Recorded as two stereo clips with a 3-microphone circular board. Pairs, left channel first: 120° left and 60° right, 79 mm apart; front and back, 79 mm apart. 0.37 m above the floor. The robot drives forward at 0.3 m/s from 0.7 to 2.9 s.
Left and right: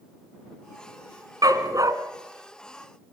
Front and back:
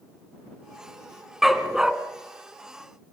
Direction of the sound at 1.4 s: 95° right.